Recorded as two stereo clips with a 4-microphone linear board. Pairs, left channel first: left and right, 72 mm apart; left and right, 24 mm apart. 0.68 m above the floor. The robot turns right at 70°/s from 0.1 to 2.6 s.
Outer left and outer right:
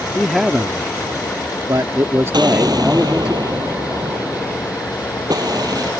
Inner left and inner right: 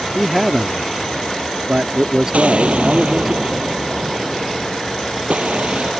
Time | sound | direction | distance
0.1 | a man speaking | 170° left | ?
2.3 | an explosion | 85° right | ?